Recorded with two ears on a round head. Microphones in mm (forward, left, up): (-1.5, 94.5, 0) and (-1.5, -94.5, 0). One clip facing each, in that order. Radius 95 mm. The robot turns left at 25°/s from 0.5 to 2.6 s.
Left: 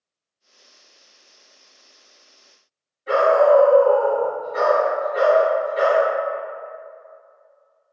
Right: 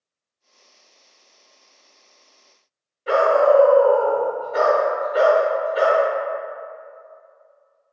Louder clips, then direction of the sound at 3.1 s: Left 1 dB; 75° right (ahead or behind).